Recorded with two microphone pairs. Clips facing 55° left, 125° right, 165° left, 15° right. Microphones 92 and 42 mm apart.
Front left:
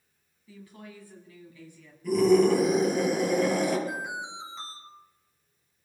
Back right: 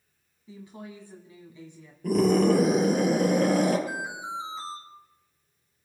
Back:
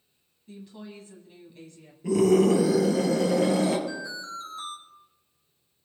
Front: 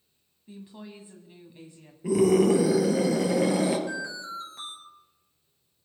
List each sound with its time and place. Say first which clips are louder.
0.5 s a woman speaking: back right 4 dB, back 1 dB; 75° right, 1.9 m
2.0 s a scream: front left 1 dB, even; 90° right, 4 m
3.9 s an alarm: back right 1 dB, front 1 dB; 45° right, 3.5 m